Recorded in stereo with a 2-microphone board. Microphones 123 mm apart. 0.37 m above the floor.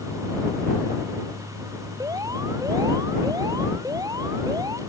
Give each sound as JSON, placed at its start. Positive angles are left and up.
{"t": 2.0, "sound": "an alarm", "side_deg": -30}